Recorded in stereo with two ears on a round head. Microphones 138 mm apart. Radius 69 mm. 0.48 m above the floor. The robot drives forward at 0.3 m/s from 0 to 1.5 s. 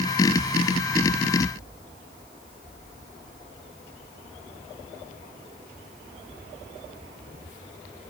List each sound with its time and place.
Only background noise.